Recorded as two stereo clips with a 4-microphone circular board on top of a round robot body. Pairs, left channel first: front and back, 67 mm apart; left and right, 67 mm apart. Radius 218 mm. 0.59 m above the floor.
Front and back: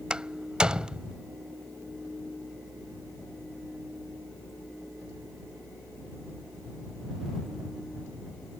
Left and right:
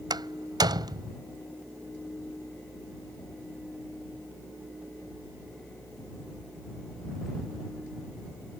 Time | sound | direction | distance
0.1 | a door slam | 105° right | ?